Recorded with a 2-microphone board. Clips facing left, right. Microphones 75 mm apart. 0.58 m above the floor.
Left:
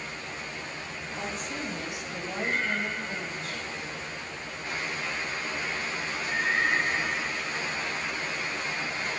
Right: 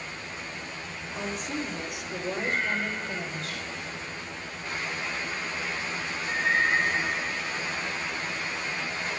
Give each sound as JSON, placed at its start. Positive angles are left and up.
{"t": 1.1, "sound": "a woman speaking", "side_deg": -85, "distance_m": 10.0}